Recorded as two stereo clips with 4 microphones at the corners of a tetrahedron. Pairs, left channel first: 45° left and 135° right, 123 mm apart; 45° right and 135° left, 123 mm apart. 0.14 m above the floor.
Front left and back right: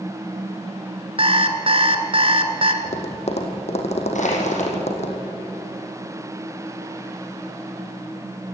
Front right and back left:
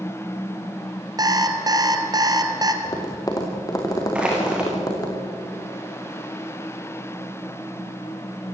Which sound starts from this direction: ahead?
Tapping, at 2.8 s.